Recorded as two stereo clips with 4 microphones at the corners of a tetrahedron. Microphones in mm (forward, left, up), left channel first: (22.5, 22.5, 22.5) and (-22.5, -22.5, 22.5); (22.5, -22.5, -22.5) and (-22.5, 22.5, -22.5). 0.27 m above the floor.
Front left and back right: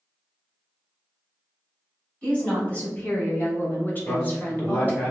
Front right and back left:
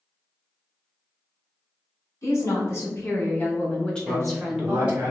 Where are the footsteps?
I don't hear footsteps.